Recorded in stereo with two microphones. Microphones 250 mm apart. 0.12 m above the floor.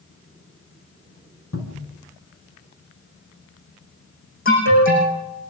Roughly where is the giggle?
No giggle in this recording.